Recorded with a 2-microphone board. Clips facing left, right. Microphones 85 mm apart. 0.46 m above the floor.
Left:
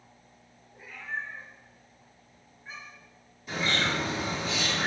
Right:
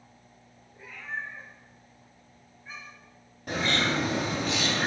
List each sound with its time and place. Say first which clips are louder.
0.7 s a cat meowing: even; 5° left (ahead or behind), 3 m; by 3.1 s 30° left (ahead or behind), 3 m
3.5 s a bird: right 2 dB; 60° right (ahead or behind), 2.5 m